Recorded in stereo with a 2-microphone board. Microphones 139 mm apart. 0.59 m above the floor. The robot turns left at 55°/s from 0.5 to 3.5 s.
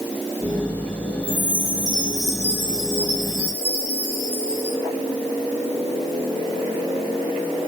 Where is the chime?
115° left, 5 m; by 4.8 s 10° right, 5 m.